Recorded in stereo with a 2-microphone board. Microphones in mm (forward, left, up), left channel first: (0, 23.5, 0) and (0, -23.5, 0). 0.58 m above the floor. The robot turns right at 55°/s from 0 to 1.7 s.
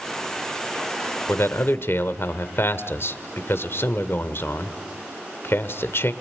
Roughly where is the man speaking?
Left.